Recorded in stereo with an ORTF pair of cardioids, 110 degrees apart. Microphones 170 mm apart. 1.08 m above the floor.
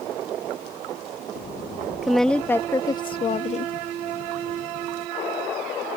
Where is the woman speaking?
Straight ahead; by 3.7 s 45° left.